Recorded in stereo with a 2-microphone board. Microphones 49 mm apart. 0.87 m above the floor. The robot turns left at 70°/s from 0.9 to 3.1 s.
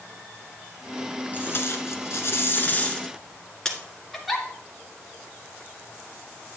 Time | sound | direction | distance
1.3 | tape being pulled | 135° left | 1.6 m
4.1 | a giggle | centre (ahead or behind) | 1.8 m